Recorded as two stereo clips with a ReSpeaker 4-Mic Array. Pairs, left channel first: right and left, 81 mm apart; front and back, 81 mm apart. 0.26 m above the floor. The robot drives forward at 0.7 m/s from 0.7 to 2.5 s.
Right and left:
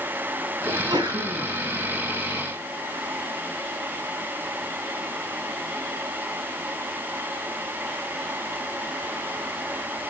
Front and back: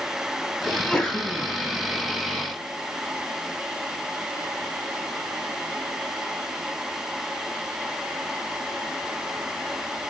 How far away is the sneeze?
About 1.7 m.